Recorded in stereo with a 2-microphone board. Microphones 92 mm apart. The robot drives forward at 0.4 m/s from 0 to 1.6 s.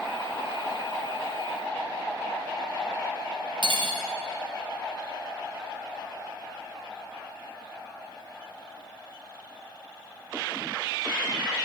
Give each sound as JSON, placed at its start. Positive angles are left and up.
{"t": 3.6, "sound": "cutlery clinking", "side_deg": -60, "distance_m": 0.9}